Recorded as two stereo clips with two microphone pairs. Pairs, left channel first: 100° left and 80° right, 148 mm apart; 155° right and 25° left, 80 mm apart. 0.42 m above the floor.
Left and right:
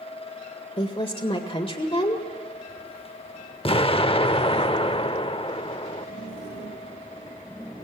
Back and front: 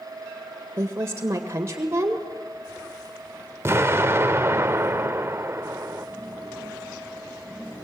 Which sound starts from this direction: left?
An explosion, at 3.6 s.